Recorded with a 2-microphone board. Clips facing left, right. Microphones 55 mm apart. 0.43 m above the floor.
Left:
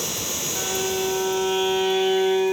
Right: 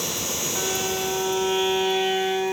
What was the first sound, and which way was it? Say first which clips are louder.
A violin: left 2 dB; 15° left (ahead or behind).